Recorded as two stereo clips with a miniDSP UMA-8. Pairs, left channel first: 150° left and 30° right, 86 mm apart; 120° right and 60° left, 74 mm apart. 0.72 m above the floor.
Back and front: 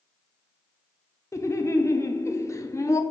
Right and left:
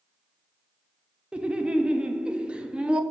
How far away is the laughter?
About 0.6 m.